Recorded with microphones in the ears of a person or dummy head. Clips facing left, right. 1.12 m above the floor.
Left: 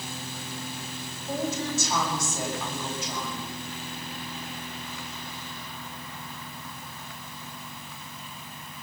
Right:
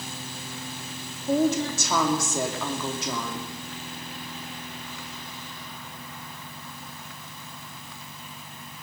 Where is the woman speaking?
60° right (ahead or behind), 2.5 m.